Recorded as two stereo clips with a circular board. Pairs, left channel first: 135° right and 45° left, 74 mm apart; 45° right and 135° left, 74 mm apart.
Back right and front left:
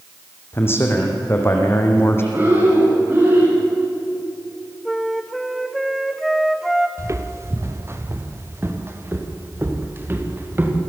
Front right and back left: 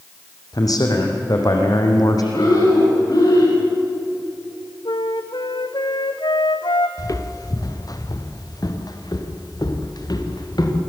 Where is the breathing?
15° right, 9 m.